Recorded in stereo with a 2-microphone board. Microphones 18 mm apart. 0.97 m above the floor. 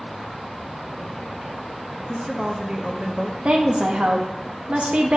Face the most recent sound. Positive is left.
turn(degrees=-80)